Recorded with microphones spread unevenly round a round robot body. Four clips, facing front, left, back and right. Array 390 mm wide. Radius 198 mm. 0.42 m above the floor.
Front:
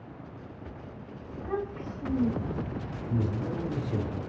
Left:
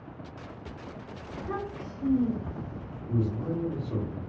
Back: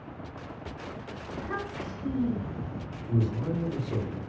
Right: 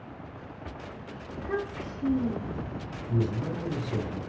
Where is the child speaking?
100° left, 1.2 m.